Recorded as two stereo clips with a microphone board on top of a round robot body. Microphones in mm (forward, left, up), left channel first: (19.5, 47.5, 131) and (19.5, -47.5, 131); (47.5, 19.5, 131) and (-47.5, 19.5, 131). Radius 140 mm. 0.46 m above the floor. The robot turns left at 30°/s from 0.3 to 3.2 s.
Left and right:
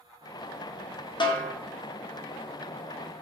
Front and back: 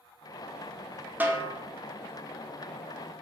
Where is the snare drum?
110° left, 0.7 m; by 1.5 s 100° left, 0.7 m.